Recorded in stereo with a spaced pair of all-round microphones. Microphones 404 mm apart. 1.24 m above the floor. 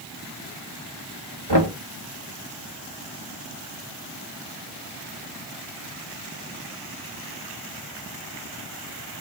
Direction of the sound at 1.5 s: 85° right.